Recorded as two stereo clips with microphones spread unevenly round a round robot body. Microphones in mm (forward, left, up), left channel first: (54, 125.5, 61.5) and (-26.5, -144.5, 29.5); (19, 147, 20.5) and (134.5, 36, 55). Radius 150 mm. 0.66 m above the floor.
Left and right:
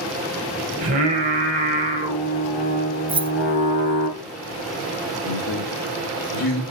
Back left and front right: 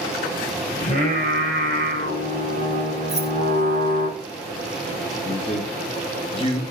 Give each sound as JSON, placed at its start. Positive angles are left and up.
{"t": 0.8, "sound": "singing", "azimuth_deg": -170, "distance_m": 2.5}
{"t": 3.1, "sound": "keys jangling", "azimuth_deg": -150, "distance_m": 0.6}
{"t": 5.2, "sound": "a man speaking", "azimuth_deg": 90, "distance_m": 2.5}